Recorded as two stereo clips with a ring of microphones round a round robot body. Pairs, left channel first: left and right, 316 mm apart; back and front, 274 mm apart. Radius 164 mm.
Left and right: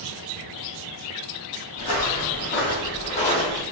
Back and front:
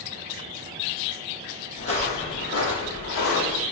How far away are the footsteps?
About 1.5 m.